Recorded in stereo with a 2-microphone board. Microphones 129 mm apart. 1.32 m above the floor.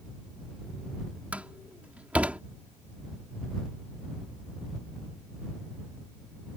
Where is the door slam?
10° right (ahead or behind).